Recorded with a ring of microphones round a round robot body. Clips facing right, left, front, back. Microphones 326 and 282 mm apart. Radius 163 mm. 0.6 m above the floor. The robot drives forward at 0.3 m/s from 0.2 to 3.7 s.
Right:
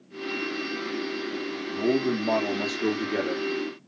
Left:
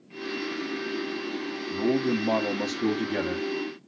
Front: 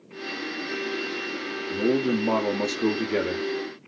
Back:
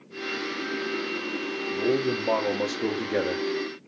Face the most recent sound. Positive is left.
turn(degrees=100)